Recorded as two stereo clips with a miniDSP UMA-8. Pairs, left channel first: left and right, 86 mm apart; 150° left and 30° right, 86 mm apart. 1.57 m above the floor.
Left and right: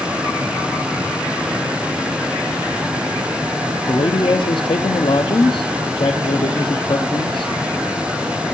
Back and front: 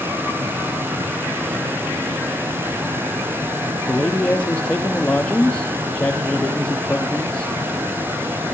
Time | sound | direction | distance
3.9 | a man speaking | 70° left | 1.1 m